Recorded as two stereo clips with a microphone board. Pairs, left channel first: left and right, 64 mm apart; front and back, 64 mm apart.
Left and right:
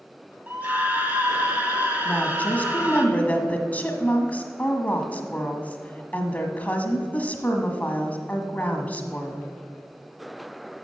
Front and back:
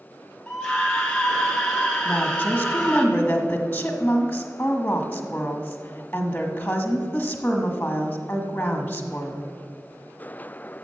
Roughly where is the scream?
Right.